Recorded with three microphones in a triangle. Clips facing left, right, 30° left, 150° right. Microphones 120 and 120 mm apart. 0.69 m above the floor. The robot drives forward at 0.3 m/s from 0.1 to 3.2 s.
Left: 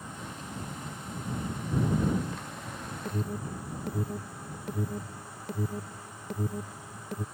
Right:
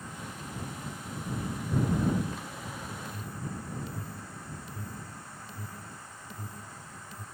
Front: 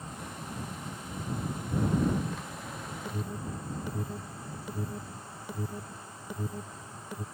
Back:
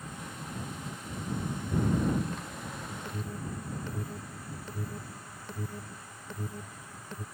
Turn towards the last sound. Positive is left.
turn(degrees=110)